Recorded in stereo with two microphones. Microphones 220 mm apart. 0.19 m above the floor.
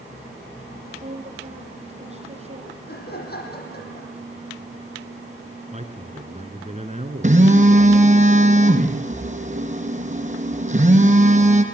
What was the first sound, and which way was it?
A woman speaking, 30° right (ahead or behind).